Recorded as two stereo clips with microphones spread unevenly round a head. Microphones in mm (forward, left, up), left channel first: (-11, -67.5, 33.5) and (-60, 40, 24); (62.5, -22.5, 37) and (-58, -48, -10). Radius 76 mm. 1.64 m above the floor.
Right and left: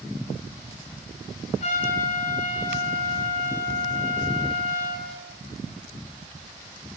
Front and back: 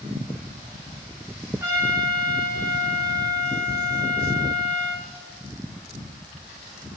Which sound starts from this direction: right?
A trumpet, at 1.6 s.